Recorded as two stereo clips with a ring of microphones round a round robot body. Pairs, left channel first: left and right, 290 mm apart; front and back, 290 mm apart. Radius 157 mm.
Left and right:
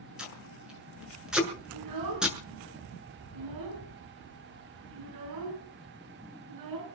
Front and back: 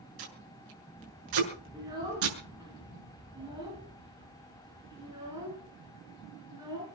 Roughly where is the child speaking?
Right.